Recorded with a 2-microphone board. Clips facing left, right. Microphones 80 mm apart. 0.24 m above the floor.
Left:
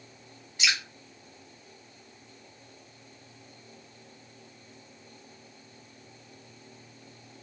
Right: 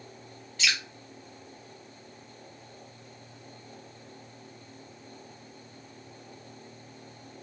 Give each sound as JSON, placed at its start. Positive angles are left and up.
{"t": 0.6, "sound": "dripping", "side_deg": 15, "distance_m": 1.1}